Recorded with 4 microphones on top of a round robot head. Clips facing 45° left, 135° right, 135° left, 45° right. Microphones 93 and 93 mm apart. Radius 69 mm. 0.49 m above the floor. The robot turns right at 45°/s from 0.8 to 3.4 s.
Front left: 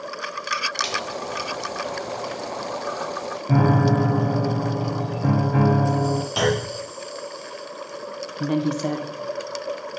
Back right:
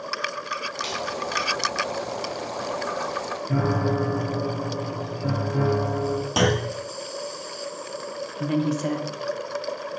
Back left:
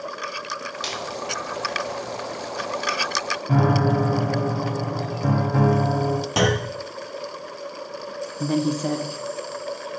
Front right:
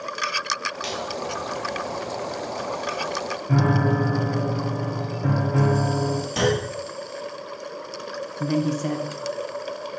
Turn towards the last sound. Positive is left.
turn(degrees=80)